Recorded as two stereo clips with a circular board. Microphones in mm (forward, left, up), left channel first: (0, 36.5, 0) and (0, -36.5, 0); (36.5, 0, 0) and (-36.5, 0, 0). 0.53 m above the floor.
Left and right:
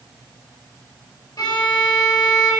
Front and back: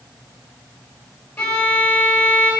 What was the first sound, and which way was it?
A violin, 65° left.